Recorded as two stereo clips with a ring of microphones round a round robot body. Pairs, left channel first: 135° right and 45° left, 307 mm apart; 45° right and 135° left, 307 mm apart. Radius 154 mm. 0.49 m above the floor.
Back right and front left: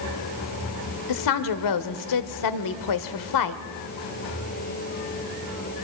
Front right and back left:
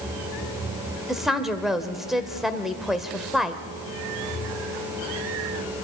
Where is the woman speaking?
135° right, 1.4 m.